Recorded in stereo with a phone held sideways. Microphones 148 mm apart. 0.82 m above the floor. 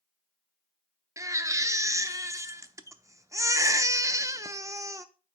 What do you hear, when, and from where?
1.2 s a baby crying: 20° right (ahead or behind), 0.7 m